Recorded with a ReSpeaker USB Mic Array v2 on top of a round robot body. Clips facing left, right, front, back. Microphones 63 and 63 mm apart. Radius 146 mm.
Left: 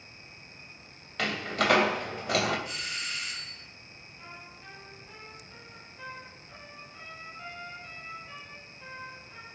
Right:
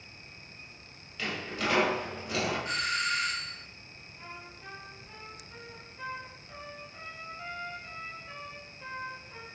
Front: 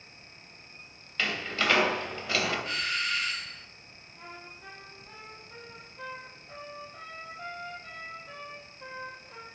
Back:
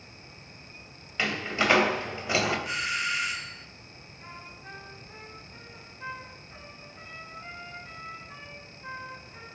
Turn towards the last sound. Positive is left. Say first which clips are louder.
# right 2 dB, even
turn(degrees=-10)